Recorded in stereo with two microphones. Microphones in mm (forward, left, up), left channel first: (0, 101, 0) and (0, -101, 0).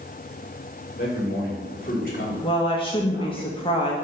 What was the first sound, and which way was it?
A man speaking, 45° left (ahead or behind).